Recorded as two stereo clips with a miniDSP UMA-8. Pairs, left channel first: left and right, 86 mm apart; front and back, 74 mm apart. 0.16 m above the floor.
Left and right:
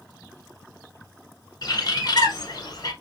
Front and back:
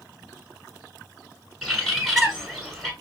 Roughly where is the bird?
Left.